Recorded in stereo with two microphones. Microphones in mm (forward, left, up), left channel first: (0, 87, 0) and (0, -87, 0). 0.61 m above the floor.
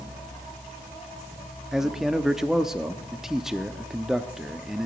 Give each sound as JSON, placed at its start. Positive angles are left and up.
{"t": 1.7, "sound": "a man speaking", "side_deg": -5, "distance_m": 0.7}